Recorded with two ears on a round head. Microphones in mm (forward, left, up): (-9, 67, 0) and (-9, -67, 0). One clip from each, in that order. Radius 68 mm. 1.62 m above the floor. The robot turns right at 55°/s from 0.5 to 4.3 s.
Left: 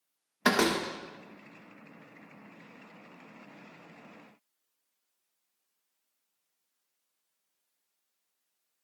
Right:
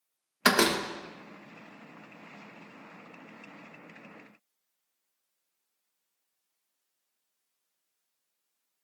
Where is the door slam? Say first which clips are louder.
Right 2 dB; 35° right (ahead or behind), 1.3 m; by 0.8 s 20° right (ahead or behind), 1.3 m.